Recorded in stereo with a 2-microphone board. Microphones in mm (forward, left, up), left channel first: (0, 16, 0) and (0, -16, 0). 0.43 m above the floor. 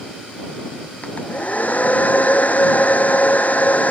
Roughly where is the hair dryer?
Left.